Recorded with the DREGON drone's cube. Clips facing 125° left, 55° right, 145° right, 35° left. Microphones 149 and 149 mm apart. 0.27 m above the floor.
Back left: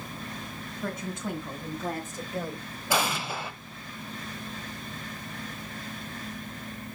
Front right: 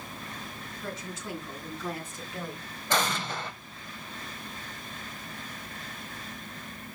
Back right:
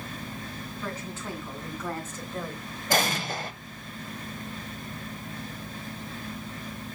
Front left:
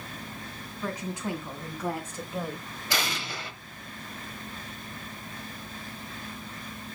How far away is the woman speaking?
About 2.5 m.